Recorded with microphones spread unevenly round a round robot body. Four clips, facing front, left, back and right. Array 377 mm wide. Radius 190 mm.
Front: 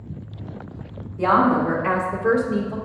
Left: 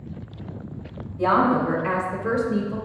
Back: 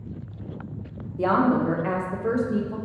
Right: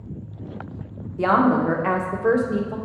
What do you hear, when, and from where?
1.2 s a woman speaking: 100° right, 1.5 m; by 2.8 s 55° right, 1.9 m